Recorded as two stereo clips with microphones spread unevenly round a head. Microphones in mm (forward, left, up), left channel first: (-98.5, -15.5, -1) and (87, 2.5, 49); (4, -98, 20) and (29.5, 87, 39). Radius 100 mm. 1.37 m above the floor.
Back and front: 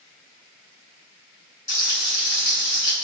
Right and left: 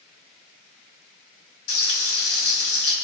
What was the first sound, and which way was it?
Frying, 100° right.